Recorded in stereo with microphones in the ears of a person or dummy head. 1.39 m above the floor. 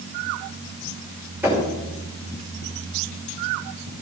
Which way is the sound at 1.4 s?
10° right (ahead or behind).